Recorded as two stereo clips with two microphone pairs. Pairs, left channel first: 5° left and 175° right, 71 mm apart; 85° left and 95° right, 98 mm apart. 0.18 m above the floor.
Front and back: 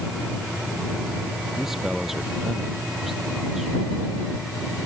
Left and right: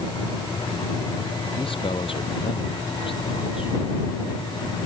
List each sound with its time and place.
1.6 s a man speaking: 100° left